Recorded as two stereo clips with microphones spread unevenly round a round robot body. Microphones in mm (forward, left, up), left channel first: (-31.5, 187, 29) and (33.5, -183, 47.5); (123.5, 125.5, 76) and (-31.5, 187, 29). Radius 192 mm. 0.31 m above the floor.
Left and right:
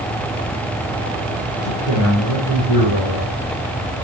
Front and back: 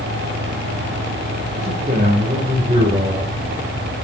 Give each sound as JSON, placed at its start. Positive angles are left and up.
{"t": 1.6, "sound": "a man speaking", "azimuth_deg": 120, "distance_m": 8.0}